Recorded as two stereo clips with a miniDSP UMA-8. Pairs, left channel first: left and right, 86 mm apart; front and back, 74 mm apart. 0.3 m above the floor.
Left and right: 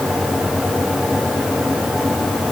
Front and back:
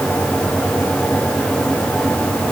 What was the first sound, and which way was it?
Only background noise.